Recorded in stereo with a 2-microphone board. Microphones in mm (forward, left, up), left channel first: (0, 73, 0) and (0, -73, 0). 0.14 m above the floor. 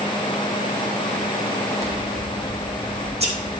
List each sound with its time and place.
1.8 s scissors: 45° right (ahead or behind), 7 m